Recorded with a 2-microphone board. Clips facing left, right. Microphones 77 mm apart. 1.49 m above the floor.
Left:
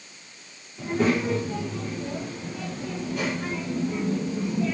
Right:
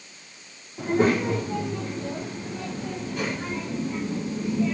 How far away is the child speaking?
About 2.5 m.